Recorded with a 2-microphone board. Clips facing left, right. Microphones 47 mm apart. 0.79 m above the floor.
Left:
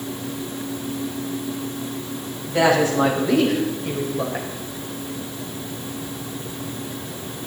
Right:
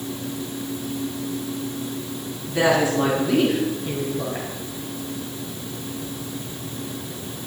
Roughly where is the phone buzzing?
No phone buzzing in this recording.